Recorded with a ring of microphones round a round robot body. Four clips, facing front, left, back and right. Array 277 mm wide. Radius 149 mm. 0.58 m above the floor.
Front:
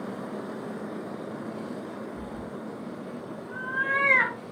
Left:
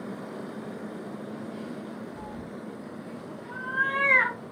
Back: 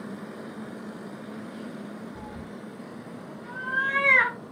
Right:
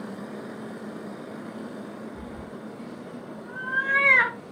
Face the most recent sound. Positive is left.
turn(degrees=-110)